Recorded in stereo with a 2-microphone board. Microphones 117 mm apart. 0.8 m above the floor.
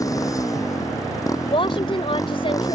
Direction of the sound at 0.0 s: 30° left (ahead or behind).